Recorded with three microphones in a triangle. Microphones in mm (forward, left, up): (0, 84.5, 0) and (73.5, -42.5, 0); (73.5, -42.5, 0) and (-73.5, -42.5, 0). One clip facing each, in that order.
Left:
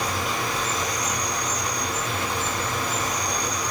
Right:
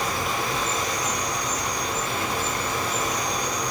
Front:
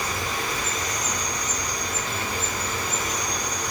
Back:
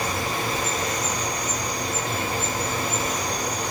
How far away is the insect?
About 4 m.